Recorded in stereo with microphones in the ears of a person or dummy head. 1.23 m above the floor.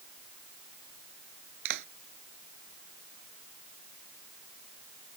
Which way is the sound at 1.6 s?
60° right (ahead or behind).